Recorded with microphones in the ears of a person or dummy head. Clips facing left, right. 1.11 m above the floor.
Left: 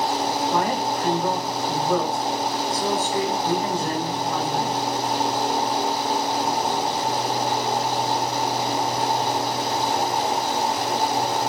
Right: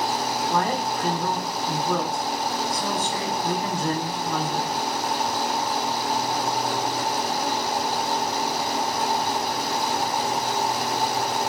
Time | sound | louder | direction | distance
0.5 | a woman speaking | left 2 dB | 5° left (ahead or behind) | 0.9 m